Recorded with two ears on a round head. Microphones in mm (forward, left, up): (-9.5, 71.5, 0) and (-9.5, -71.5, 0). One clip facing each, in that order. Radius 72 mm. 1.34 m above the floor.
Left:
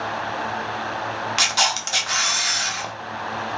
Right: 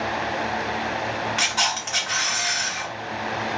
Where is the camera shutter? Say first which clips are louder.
Left 2 dB; 45° left (ahead or behind), 0.7 m.